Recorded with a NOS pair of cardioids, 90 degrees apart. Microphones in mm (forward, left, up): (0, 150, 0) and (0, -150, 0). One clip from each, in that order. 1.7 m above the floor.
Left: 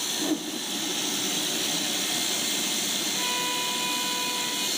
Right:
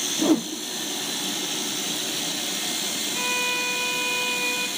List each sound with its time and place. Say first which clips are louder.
0.2 s a whoosh: right 6 dB; 55° right, 1.0 m
3.1 s a violin: right 3 dB; 25° right, 1.1 m